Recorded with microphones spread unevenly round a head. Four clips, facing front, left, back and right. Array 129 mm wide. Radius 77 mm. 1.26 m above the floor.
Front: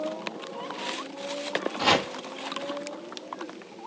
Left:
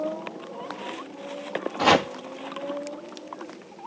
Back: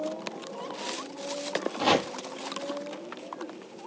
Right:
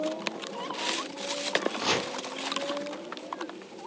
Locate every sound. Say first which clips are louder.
1.8 s chopping: left 10 dB, even; 90° left, 1.0 m